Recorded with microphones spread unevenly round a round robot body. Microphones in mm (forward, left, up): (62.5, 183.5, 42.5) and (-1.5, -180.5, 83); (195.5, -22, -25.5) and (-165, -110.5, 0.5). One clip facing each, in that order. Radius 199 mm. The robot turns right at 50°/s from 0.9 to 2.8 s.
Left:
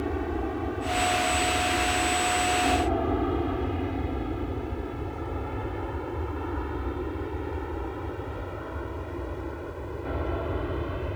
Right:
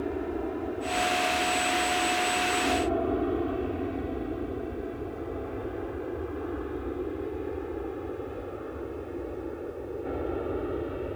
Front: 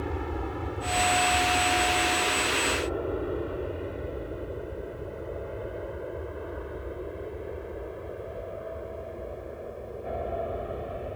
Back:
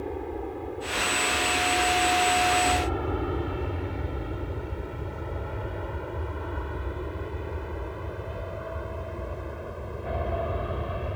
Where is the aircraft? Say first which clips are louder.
Left 1 dB, back 1 dB; 40° left; by 11.2 s 140° left.